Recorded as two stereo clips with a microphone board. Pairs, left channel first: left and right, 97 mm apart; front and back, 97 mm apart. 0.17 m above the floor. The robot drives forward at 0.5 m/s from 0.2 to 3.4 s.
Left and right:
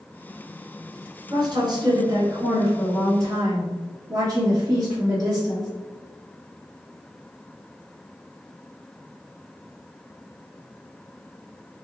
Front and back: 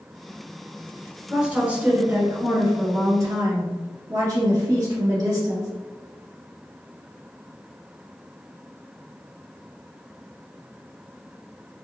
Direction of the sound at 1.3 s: 105° right.